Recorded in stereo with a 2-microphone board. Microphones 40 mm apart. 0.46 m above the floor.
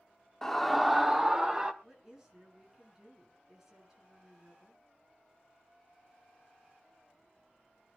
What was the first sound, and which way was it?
A scream, 10° left (ahead or behind).